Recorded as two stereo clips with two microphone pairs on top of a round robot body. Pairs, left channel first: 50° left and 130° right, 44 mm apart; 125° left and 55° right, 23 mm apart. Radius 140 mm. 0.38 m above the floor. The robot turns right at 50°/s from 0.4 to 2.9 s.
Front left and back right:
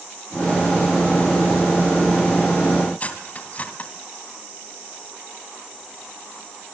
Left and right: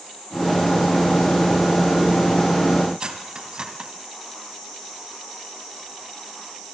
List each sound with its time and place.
3.0 s cutlery clinking: 5° right, 2.5 m